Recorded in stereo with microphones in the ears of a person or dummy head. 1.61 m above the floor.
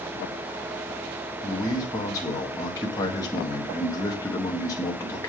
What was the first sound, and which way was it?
A man speaking, 20° left (ahead or behind).